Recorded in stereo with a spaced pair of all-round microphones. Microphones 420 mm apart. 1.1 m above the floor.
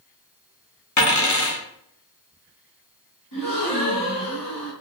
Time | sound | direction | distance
1.0 | a dropped coin | 45° left (ahead or behind) | 0.7 m
3.3 | a gasp | 55° left (ahead or behind) | 1.7 m